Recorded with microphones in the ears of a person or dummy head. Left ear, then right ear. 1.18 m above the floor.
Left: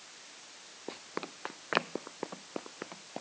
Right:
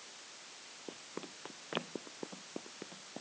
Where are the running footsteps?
60° left (ahead or behind); by 3.2 s 50° left (ahead or behind).